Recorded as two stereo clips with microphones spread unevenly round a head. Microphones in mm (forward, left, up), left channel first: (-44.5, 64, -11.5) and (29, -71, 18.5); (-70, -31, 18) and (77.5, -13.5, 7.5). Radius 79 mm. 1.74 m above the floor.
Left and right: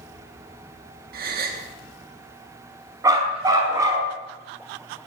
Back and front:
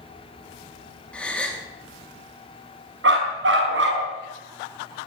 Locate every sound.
1.1 s a gasp: 90° right, 4 m
3.0 s a dog barking: 10° left, 6 m